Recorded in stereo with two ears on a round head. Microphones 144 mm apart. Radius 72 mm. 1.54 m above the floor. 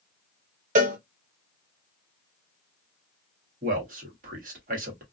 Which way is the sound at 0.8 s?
50° right (ahead or behind).